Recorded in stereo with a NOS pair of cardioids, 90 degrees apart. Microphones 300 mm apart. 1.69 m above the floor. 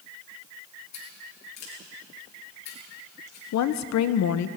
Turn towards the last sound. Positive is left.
turn(degrees=65)